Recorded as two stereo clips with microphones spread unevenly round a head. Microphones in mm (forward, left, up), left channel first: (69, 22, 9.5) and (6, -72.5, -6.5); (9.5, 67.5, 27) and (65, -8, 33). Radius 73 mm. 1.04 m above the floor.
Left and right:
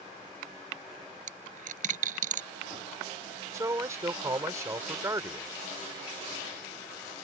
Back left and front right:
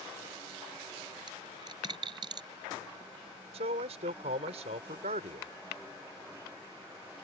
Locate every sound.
1.3 s a dropped coin: 115° right
3.5 s a man speaking: 60° right